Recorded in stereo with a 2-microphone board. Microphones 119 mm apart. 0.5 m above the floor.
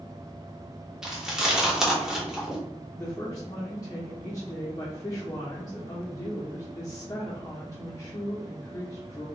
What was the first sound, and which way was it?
Chewing, 5° right (ahead or behind).